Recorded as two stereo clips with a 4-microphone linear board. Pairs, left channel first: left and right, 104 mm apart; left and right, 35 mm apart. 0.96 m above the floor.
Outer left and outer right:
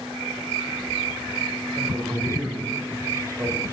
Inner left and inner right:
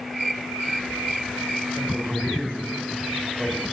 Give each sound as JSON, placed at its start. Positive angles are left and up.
{"t": 1.8, "sound": "a man speaking", "side_deg": -35, "distance_m": 4.0}